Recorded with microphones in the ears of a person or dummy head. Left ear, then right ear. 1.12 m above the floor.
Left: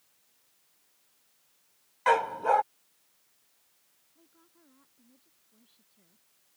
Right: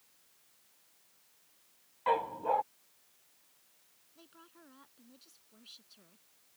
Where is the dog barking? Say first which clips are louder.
Left 6 dB; 65° left (ahead or behind).